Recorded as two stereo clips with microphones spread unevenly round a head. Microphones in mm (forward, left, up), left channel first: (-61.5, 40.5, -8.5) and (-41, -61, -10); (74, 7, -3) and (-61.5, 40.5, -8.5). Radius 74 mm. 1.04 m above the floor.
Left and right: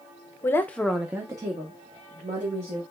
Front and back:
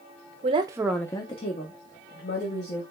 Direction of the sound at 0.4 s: 155° left.